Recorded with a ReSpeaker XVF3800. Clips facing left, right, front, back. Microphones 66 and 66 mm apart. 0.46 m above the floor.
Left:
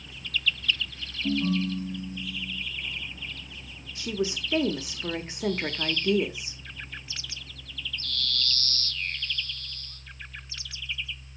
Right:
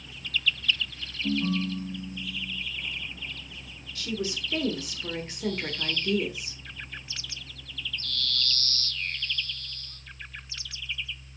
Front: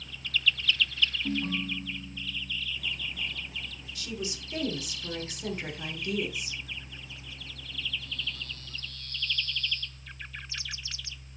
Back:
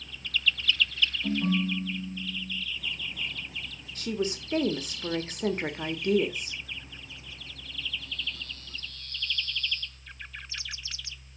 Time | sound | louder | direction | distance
1.2 | a ringtone | left 1 dB, back 4 dB | straight behind | 5.5 m
4.0 | a woman speaking | left 3 dB, back 7 dB | 150° left | 1.1 m